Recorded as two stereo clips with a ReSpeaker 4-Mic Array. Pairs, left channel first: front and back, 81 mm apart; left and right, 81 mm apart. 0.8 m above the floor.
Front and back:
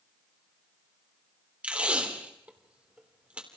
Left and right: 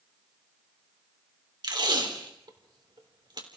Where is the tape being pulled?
105° right, 3 m.